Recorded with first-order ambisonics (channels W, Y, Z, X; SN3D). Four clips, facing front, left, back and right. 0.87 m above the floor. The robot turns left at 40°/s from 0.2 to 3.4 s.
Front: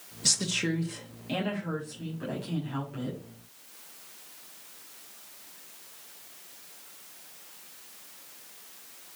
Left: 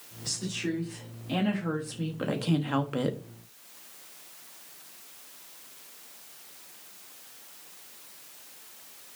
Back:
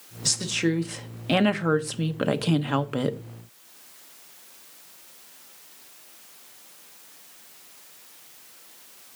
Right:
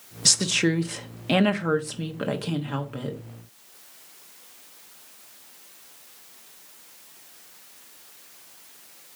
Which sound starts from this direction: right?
A woman speaking, at 0.2 s.